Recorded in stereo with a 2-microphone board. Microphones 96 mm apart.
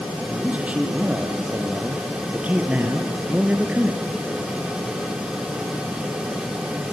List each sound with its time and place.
0.3 s a man speaking: 15° right (ahead or behind), 3 m; by 4.0 s 10° right (ahead or behind), 1.4 m